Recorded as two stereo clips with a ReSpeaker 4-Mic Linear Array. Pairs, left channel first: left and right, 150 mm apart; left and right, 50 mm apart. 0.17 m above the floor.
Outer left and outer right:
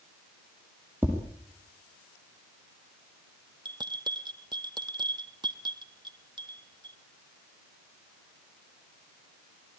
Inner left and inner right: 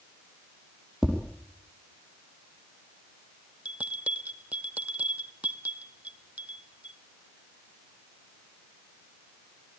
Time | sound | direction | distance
1.0 | tapping | 15° right (ahead or behind) | 5.5 m
3.6 | a bell | 30° right (ahead or behind) | 1.4 m